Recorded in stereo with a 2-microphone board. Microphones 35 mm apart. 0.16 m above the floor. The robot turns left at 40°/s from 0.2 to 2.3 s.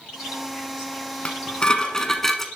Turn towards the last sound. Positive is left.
turn(degrees=10)